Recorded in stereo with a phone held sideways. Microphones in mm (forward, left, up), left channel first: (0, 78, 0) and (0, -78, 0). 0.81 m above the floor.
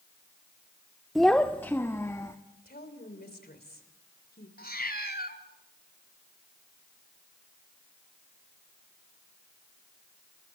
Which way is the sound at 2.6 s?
75° left (ahead or behind).